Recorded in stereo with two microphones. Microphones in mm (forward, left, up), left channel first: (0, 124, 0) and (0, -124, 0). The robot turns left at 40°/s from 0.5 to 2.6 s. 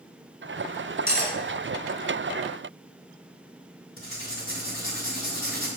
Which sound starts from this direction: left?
Writing, at 4.0 s.